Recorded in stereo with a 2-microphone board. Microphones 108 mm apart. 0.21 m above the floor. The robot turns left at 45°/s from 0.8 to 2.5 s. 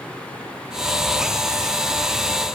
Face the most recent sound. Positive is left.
No sound to turn to.